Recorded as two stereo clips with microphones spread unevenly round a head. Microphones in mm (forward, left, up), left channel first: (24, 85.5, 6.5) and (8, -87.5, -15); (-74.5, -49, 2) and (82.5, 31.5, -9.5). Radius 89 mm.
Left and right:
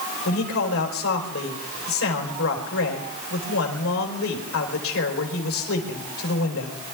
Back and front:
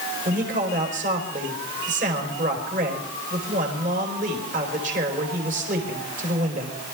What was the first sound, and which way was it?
A man speaking, 80° left.